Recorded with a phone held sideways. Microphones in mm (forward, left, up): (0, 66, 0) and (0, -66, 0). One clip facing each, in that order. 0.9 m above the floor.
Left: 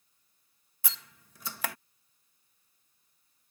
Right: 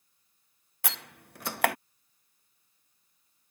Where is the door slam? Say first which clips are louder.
Right 8 dB; 65° right (ahead or behind).